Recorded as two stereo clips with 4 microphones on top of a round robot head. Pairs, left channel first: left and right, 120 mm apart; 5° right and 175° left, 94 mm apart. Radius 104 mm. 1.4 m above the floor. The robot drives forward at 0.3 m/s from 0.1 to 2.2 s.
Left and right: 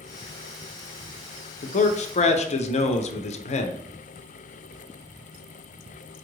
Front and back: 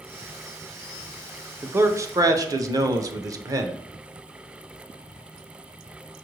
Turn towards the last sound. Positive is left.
turn(degrees=120)